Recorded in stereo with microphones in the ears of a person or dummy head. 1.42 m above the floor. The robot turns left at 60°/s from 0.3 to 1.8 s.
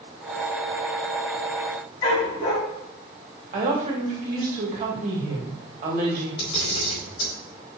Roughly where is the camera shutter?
Left.